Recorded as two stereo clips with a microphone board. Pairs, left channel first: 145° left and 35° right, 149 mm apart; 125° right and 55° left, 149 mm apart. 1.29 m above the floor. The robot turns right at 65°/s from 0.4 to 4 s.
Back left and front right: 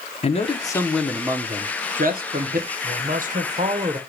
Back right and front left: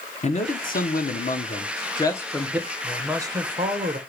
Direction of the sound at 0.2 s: 165° right.